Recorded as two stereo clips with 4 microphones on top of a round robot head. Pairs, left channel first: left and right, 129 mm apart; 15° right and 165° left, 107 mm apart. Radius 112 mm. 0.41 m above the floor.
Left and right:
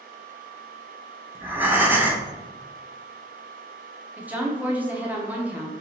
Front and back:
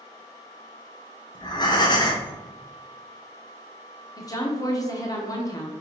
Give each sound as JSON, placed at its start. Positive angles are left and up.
{"t": 1.4, "sound": "breathing", "azimuth_deg": -20, "distance_m": 1.0}
{"t": 4.2, "sound": "a woman speaking", "azimuth_deg": -20, "distance_m": 0.9}